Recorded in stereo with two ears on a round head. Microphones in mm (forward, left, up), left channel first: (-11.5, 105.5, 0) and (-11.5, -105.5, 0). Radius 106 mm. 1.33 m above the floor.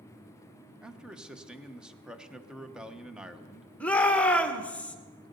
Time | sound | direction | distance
0.8 | a man speaking | 5° right (ahead or behind) | 0.9 m
3.8 | a shout | 5° left (ahead or behind) | 1.5 m